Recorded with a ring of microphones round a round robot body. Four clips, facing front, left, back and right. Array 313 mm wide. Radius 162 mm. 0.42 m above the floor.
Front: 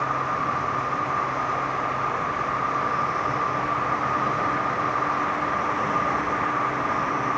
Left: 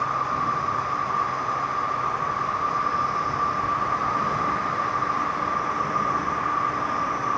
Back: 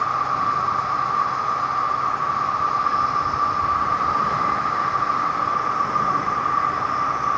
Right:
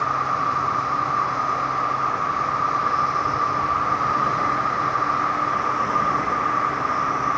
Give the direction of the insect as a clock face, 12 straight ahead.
4 o'clock.